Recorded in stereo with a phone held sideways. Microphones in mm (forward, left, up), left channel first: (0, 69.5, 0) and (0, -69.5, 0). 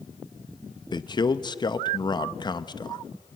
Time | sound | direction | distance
0.9 | a man speaking | 30° left (ahead or behind) | 0.6 m